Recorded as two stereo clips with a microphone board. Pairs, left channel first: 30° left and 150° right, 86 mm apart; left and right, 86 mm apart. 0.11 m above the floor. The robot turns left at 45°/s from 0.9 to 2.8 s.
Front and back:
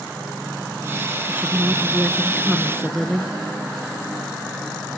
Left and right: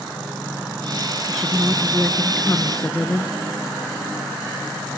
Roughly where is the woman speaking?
Behind.